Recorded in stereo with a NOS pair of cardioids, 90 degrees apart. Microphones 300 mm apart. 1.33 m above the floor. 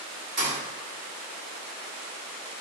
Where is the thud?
35° right, 1.9 m.